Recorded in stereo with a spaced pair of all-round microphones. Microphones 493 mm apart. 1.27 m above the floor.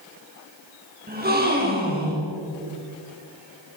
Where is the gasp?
20° right (ahead or behind), 5.5 m.